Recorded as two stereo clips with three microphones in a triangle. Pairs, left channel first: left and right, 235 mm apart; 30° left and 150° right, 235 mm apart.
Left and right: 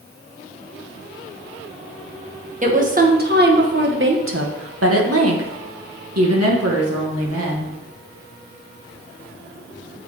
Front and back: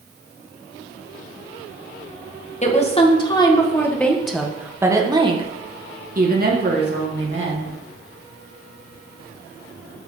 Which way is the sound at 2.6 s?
30° right.